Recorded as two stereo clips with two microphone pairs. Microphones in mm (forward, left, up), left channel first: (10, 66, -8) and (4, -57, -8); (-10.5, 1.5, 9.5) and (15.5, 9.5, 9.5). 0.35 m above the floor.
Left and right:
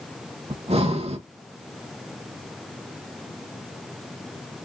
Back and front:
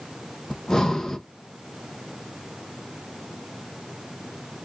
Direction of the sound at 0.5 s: 100° right.